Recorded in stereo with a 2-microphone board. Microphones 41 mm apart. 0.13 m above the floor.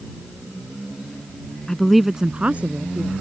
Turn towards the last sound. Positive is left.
turn(degrees=-50)  # may be behind; listen again after turning